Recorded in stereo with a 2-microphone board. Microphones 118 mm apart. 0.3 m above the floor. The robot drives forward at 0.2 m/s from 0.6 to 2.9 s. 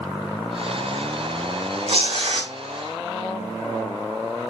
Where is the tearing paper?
60° right (ahead or behind), 1.0 m; by 2.5 s 55° right (ahead or behind), 1.0 m.